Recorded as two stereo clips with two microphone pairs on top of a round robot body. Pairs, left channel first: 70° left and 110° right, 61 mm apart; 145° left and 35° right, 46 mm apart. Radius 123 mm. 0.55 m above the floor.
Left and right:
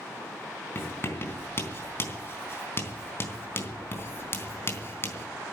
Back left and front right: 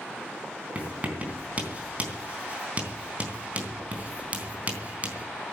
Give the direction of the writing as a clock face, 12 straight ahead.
11 o'clock.